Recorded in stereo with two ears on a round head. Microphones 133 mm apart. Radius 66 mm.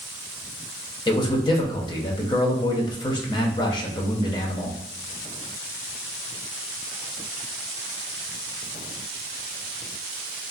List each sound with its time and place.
1.1 s a man speaking: 30° left (ahead or behind), 0.7 m